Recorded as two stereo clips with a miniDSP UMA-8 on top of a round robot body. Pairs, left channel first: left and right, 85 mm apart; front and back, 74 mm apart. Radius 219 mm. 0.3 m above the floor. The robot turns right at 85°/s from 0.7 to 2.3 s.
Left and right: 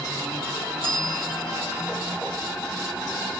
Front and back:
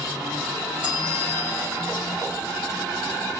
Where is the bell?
105° right, 6.5 m; by 1.9 s 15° right, 6.5 m.